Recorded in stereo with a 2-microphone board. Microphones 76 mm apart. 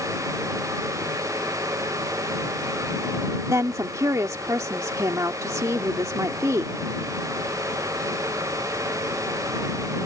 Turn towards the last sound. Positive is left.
turn(degrees=-45)  # may be behind; listen again after turning